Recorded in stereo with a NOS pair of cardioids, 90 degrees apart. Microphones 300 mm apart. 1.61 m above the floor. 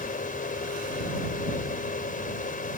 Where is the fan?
30° left.